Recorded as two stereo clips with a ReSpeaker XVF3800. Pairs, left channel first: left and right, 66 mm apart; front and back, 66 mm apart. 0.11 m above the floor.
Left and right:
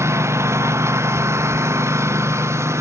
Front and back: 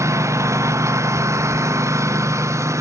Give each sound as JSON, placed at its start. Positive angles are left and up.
{"t": 0.0, "sound": "a lawn mower", "azimuth_deg": -135}